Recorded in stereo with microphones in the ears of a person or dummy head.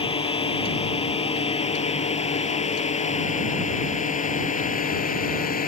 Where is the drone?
30° left (ahead or behind); by 5.7 s 45° left (ahead or behind).